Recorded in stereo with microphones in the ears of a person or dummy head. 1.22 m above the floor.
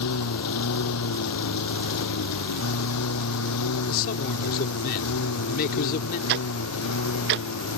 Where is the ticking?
55° right (ahead or behind).